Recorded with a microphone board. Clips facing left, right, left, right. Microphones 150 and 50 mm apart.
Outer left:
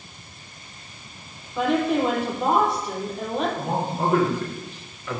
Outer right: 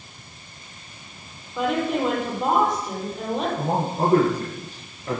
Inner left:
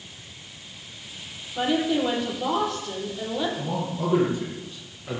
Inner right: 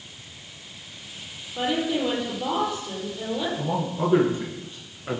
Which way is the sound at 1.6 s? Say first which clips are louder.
Outer left 2 dB, inner left 2 dB; centre (ahead or behind).